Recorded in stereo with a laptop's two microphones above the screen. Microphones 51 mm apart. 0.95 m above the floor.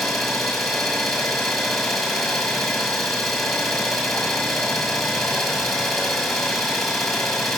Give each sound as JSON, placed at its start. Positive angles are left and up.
{"t": 0.0, "sound": "an engine running", "side_deg": 5, "distance_m": 1.3}